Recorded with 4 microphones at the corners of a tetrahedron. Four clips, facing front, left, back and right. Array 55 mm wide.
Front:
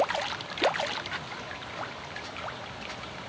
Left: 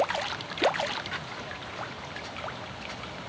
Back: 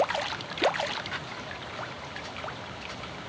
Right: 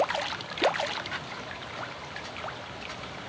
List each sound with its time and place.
Only background noise.